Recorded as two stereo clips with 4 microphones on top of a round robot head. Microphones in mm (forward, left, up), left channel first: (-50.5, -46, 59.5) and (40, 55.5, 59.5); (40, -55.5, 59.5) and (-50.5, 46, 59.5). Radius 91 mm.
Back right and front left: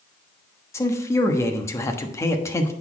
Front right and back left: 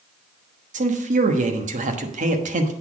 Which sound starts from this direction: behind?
A man speaking, at 0.7 s.